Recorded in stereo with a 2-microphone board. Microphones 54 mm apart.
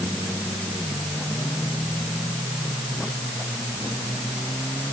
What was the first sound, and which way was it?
Only background noise.